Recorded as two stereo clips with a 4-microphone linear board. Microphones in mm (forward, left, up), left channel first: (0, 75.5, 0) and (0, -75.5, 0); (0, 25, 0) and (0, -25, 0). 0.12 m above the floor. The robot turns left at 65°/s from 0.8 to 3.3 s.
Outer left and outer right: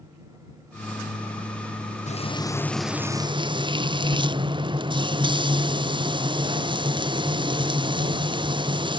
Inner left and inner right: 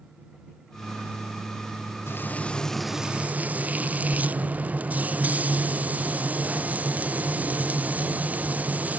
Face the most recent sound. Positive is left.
turn(degrees=-30)